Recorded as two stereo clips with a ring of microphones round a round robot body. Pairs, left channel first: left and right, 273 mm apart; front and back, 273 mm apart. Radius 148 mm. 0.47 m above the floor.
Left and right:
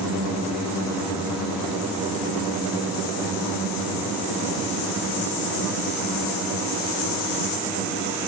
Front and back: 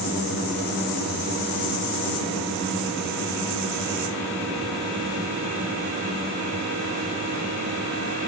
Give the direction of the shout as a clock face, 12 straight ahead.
No shout in this recording.